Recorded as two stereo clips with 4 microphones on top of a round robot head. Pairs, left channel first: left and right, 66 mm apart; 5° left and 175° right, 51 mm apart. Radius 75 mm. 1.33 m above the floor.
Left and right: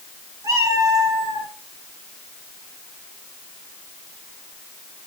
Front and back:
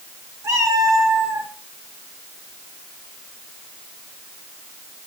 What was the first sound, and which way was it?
A cat meowing, 135° right.